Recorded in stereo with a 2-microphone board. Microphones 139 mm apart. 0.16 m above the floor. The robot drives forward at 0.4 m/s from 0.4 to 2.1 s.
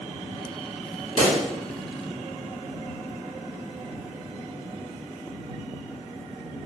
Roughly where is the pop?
Left.